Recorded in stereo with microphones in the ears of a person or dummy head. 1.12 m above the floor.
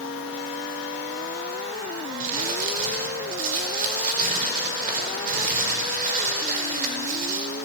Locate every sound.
2.2 s crumpling: 45° right (ahead or behind), 5 m